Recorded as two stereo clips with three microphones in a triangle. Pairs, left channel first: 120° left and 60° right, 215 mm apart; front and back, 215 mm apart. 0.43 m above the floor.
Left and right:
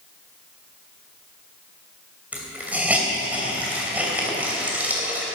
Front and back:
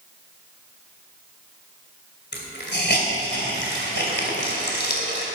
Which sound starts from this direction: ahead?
A hiss, at 2.3 s.